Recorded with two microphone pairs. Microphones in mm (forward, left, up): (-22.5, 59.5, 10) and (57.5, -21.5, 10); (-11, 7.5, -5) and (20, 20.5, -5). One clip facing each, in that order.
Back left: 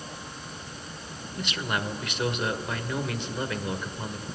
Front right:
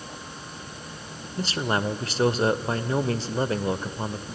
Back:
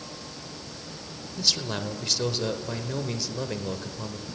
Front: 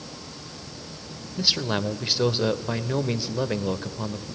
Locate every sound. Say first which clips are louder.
1.4 s a man speaking: front right 5 dB, front 4 dB; 25° right, 1.0 m